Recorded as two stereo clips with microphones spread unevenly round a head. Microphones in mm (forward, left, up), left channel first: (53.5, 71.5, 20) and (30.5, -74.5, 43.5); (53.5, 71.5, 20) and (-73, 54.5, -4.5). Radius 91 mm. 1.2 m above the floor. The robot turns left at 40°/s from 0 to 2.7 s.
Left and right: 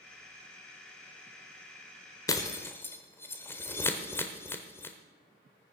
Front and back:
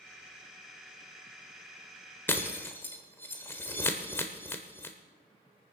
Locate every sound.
2.3 s breaking glass: 20° left, 0.9 m; by 5.0 s straight ahead, 0.9 m